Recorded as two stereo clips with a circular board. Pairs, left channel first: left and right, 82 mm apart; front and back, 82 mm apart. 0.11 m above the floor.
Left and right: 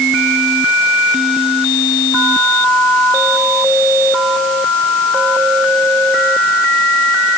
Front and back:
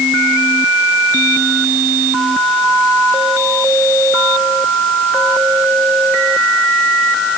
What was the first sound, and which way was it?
Only background noise.